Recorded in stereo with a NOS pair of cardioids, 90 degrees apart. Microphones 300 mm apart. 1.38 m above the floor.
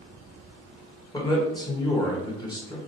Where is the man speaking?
15° left, 1.4 m.